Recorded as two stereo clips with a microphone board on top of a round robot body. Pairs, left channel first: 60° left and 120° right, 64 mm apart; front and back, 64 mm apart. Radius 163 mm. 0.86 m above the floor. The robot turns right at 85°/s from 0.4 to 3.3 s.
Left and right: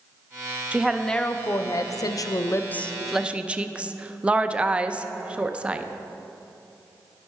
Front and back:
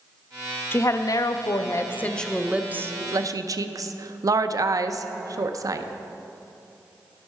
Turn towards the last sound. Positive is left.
turn(degrees=170)